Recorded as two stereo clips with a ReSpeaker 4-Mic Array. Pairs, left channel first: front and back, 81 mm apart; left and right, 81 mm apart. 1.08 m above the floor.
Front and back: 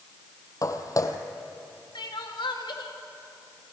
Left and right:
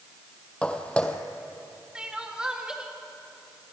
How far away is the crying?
About 2.0 m.